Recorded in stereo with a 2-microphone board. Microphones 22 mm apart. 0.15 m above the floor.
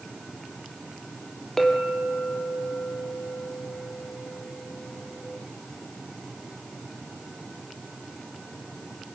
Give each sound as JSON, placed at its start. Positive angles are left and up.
{"t": 1.6, "sound": "a clink", "side_deg": 15, "distance_m": 3.0}